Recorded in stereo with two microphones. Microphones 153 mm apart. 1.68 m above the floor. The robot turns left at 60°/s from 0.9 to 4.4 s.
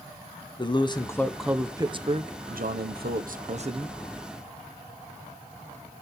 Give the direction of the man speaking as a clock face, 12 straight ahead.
11 o'clock.